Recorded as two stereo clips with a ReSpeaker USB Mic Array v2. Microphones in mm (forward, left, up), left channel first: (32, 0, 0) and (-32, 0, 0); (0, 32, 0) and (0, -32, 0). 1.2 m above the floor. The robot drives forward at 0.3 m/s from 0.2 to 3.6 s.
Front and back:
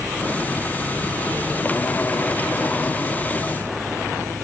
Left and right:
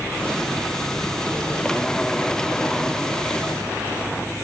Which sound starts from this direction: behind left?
An engine running, at 0.0 s.